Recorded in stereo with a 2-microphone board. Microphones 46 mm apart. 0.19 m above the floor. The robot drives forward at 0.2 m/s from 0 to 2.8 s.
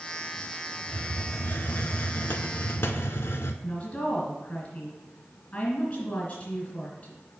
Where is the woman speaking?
35° left (ahead or behind), 2 m.